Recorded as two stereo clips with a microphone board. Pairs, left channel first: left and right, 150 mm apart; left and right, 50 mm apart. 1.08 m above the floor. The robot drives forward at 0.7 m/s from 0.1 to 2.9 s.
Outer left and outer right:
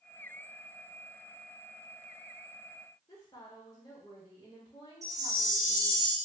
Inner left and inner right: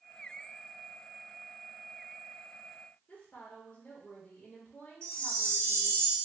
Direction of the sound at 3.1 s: 25° left (ahead or behind).